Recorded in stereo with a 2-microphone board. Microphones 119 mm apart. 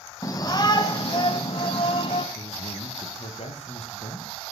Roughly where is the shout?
Left.